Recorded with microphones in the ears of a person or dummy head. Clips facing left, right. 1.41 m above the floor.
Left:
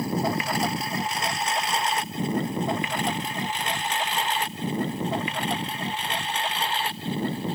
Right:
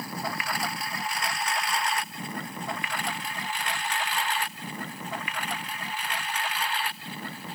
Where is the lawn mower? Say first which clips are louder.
Left 9 dB; 25° left (ahead or behind); by 7.5 s 30° left (ahead or behind).